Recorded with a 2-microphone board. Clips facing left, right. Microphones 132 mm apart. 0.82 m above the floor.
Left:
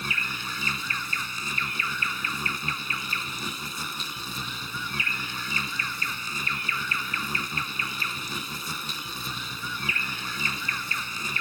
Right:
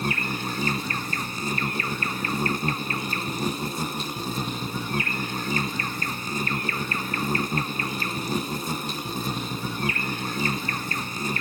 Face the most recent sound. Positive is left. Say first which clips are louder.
# right 7 dB
turn(degrees=-45)  # may be behind; listen again after turning